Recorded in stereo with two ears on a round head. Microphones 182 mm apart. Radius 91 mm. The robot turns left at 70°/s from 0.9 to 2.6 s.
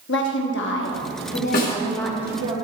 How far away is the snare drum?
About 1.9 m.